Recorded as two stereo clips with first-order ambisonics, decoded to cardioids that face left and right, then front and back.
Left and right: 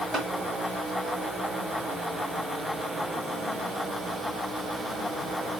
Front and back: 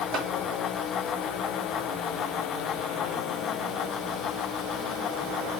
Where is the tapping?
175° left, 1.8 m.